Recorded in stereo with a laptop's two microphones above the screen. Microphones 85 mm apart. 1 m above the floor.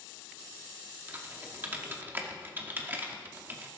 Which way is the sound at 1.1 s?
25° right (ahead or behind).